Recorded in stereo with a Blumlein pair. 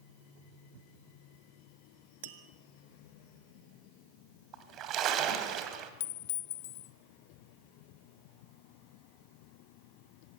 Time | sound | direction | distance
2.2 | tapping | 50° right | 1.8 m
4.5 | a splash | 35° right | 2.5 m
6.0 | a clink | 55° left | 1.0 m